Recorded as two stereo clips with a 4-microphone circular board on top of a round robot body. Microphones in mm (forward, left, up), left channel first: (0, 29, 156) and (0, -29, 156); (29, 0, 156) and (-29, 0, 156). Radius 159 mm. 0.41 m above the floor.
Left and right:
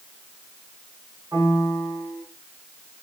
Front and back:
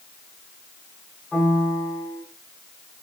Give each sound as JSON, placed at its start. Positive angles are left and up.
{"t": 1.3, "sound": "a piano", "azimuth_deg": -60, "distance_m": 4.5}